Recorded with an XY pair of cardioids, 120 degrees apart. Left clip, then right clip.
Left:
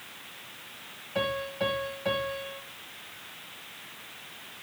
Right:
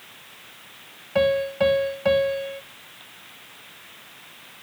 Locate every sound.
1.1 s a piano: 55° right, 1.5 m